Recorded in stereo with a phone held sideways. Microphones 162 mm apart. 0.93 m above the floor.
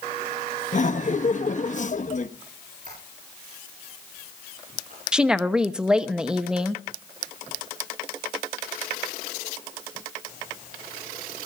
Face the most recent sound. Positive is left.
turn(degrees=-5)  # may be behind; listen again after turning